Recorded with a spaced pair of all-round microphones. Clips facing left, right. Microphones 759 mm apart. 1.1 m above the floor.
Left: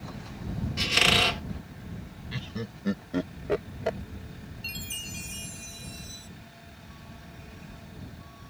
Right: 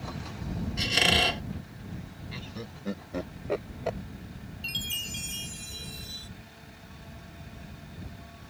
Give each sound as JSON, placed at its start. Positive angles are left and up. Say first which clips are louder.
{"t": 0.8, "sound": "a squeak", "louder": "left 1 dB", "side_deg": 40}
{"t": 2.3, "sound": "laughter", "louder": "left 5 dB", "side_deg": 50}
{"t": 4.6, "sound": "a chime", "louder": "even", "side_deg": -85}